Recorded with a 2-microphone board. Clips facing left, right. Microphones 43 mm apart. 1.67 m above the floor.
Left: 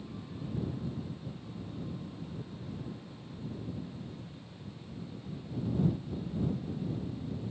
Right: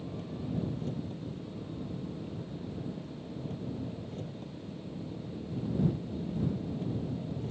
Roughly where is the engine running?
Right.